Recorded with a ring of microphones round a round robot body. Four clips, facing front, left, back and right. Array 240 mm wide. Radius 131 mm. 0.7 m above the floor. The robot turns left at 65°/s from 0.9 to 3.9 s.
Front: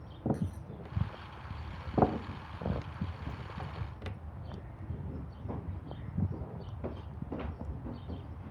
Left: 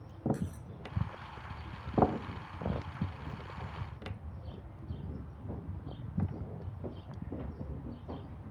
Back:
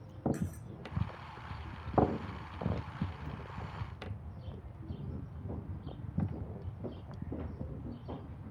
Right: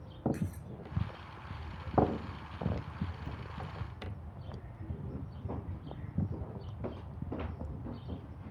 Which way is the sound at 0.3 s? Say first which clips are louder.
Right 1 dB, front 1 dB; 160° right.